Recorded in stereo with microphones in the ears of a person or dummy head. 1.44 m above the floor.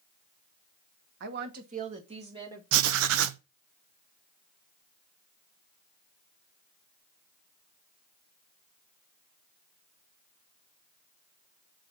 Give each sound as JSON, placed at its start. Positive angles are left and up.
{"t": 1.2, "sound": "a woman speaking", "side_deg": -65, "distance_m": 1.1}
{"t": 2.7, "sound": "writing", "side_deg": -80, "distance_m": 0.7}